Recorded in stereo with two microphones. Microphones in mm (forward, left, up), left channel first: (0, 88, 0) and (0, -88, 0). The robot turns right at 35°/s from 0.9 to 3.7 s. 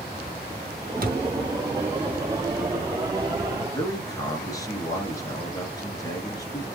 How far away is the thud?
About 1.3 m.